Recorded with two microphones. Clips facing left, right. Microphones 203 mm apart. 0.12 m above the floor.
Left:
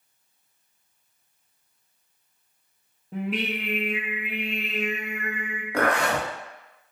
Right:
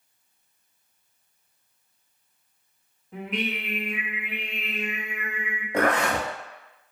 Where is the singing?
35° left (ahead or behind), 0.8 m.